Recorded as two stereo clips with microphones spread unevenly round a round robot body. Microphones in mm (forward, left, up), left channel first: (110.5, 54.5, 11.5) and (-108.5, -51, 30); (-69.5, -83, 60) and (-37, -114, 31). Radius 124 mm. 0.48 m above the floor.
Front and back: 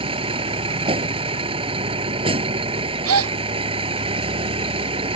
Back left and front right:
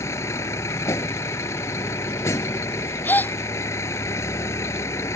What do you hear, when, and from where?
0.0 s a vehicle: 135° left
3.0 s a gasp: 175° left